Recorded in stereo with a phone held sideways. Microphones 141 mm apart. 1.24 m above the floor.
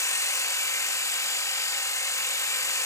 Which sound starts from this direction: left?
A machine running, at 0.0 s.